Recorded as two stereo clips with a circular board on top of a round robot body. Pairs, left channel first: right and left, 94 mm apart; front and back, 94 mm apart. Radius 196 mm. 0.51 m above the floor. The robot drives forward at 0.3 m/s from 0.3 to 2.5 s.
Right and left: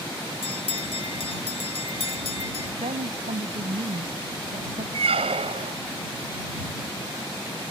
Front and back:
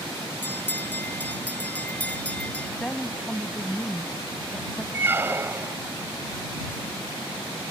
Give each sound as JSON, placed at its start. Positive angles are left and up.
{"t": 0.4, "sound": "a bell", "azimuth_deg": -70}
{"t": 2.8, "sound": "a woman speaking", "azimuth_deg": 80}
{"t": 4.9, "sound": "a squeak", "azimuth_deg": 110}